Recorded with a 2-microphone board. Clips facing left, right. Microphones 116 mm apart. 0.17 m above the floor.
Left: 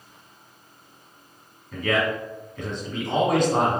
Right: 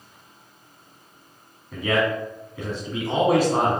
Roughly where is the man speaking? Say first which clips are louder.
Right 1 dB; centre.